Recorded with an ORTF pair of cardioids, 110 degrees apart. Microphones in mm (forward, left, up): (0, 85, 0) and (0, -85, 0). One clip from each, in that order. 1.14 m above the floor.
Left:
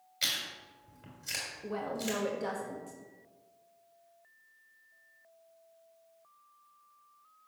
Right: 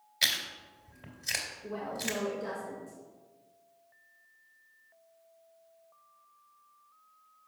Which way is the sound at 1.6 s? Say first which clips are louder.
Even; 40° left.